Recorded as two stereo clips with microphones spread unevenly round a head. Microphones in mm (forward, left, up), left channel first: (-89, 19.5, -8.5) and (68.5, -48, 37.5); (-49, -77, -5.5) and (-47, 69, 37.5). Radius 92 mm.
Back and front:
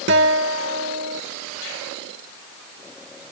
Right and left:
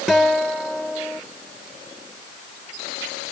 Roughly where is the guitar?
Ahead.